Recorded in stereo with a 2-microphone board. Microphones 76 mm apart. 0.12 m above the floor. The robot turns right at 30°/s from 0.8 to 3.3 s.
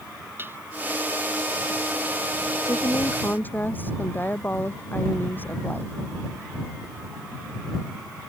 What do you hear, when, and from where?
0.4 s dishes clattering: 30° right (ahead or behind)
2.6 s a woman speaking: 45° left (ahead or behind); by 5.9 s 25° left (ahead or behind)